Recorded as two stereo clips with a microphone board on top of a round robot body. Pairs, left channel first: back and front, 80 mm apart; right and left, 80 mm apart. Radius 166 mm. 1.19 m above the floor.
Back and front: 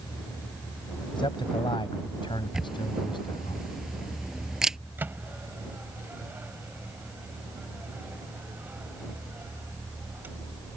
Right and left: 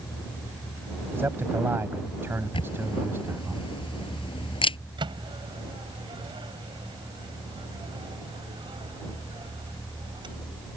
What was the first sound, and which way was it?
A man speaking, 155° left.